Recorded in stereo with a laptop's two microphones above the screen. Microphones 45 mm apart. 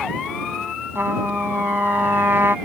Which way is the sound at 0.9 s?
60° right (ahead or behind).